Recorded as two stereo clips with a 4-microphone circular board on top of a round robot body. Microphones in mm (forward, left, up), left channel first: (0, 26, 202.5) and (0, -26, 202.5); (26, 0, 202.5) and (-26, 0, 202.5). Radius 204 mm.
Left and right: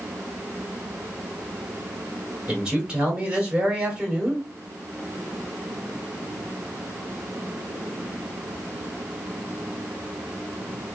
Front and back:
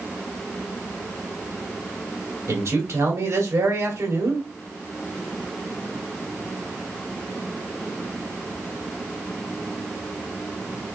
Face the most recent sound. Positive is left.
turn(degrees=-160)